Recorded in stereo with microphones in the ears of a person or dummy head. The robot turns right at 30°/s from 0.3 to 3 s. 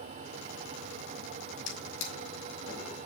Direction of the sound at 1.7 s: 60° left (ahead or behind).